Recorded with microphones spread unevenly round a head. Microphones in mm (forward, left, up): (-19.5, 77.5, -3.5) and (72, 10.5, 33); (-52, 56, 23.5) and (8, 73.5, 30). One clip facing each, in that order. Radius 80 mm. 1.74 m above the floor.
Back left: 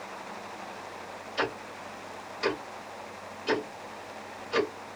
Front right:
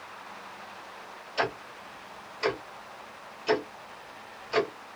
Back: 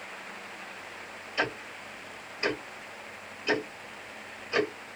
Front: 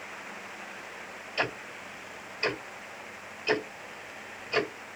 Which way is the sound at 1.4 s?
90° right.